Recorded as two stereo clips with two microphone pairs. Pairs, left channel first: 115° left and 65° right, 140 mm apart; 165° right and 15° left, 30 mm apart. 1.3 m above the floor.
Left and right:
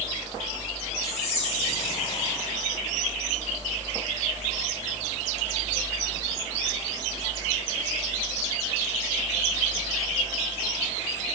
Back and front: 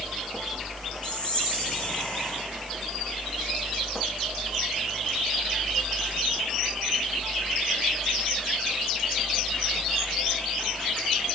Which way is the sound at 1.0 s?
155° left.